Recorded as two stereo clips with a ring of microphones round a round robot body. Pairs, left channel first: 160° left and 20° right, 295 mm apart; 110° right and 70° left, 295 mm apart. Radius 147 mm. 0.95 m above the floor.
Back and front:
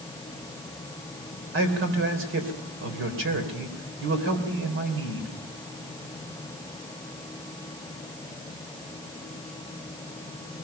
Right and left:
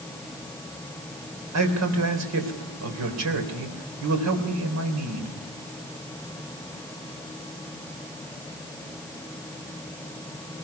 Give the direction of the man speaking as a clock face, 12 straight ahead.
11 o'clock.